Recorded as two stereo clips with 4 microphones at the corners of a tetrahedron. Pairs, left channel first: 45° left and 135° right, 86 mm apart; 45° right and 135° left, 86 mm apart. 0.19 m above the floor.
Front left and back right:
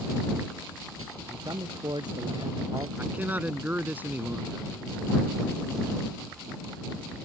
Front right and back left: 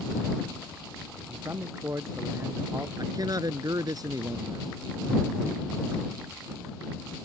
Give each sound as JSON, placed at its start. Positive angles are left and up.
{"t": 1.3, "sound": "a man speaking", "azimuth_deg": -170}
{"t": 3.0, "sound": "a man speaking", "azimuth_deg": 160}